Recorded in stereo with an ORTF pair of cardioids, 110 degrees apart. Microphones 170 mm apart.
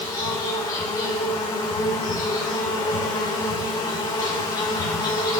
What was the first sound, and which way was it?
An insect, 25° left.